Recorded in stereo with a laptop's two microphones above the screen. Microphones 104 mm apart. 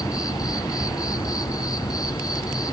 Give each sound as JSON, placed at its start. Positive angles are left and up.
{"t": 0.0, "sound": "an insect", "side_deg": 35, "distance_m": 0.8}